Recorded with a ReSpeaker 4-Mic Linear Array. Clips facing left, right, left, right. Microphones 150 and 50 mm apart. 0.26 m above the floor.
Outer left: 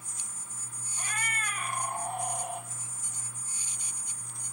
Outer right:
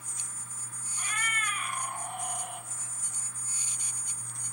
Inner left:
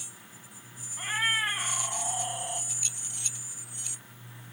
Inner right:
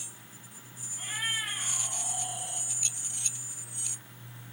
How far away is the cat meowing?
About 1.0 m.